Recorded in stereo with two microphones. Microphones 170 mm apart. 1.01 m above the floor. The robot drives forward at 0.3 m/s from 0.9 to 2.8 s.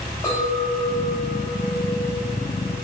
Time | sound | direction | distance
0.2 | a clink | 20° left (ahead or behind) | 3 m